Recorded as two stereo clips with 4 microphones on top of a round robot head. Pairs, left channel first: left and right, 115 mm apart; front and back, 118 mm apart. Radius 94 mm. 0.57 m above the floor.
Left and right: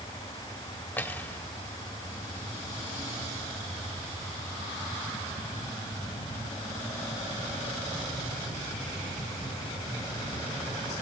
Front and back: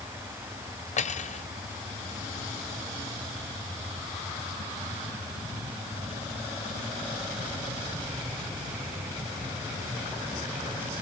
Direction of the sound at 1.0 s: 10° left.